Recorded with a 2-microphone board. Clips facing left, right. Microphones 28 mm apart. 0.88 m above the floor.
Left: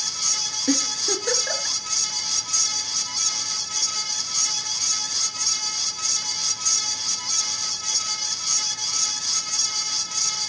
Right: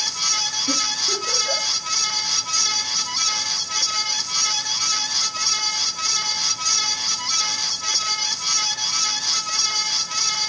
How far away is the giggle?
About 3.5 m.